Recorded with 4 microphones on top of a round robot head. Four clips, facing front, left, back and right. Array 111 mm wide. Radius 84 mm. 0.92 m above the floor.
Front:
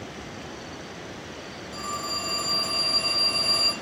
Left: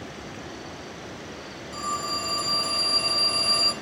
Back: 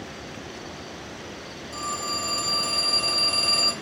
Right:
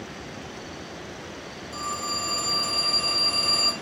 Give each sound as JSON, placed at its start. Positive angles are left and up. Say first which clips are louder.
{"t": 1.7, "sound": "a phone ringing", "louder": "left 2 dB, back 2 dB", "azimuth_deg": 180, "distance_m": 1.3}